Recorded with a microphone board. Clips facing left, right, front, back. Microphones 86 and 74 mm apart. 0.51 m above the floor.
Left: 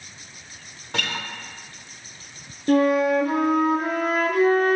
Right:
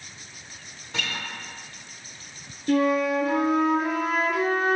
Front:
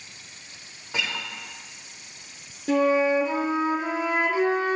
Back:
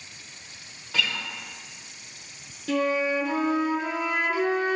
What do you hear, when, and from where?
0.9 s a guitar: 70° left, 0.6 m
2.7 s a flute: 60° left, 0.7 m